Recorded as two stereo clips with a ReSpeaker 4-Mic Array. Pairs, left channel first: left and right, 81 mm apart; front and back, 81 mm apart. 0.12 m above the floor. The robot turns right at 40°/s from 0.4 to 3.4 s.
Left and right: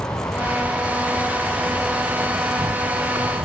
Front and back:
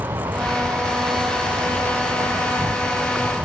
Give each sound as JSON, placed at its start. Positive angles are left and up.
{"t": 0.0, "sound": "an insect", "azimuth_deg": 135}